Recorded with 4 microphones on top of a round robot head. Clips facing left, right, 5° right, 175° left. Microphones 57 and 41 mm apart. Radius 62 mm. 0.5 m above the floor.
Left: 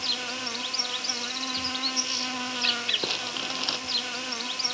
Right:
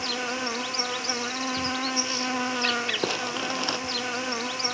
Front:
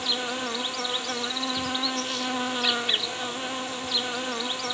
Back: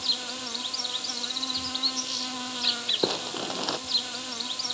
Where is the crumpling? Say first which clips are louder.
Right 5 dB, back 2 dB; 160° right.